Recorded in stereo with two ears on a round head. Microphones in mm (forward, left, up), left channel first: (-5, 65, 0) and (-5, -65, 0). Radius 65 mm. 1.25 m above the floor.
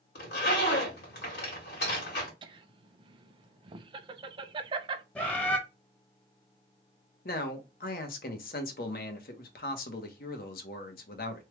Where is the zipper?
75° left (ahead or behind), 1.9 m.